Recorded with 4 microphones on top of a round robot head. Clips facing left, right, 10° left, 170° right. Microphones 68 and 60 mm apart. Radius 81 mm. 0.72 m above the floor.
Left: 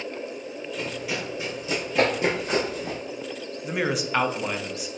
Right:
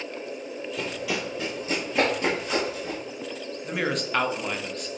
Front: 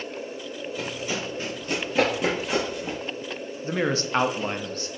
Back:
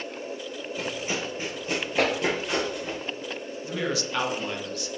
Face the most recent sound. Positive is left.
turn(degrees=10)